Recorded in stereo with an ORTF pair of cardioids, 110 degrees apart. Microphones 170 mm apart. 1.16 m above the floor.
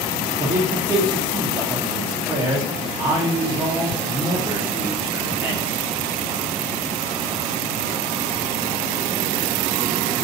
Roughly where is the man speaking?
Ahead.